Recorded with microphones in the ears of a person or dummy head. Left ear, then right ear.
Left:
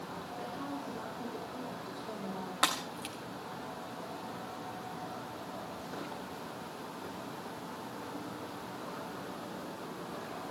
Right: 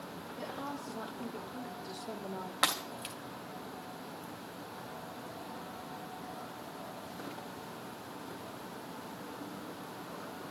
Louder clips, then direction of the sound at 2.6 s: Even; 5° right (ahead or behind).